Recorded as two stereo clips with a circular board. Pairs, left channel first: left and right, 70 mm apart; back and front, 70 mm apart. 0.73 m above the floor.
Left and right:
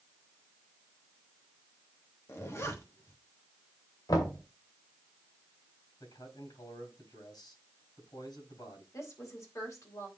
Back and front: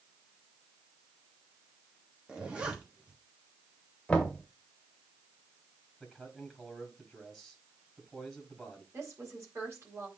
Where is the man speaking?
85° left, 4 m.